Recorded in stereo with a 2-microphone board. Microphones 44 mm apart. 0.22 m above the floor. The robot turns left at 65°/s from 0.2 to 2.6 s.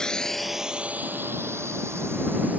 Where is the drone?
15° left (ahead or behind); by 2.6 s 35° right (ahead or behind).